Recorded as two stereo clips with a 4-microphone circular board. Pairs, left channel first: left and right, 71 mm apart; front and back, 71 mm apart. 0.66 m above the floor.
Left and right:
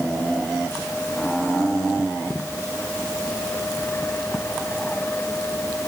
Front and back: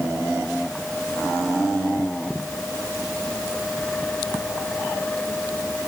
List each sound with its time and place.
Only background noise.